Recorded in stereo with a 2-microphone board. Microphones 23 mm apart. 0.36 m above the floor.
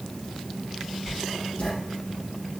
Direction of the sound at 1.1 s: 70° left (ahead or behind).